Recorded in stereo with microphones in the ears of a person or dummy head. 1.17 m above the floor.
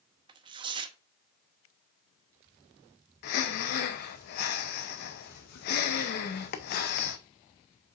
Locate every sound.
0.3 s tearing paper: 25° right (ahead or behind), 0.7 m
3.2 s breathing: 55° left (ahead or behind), 0.7 m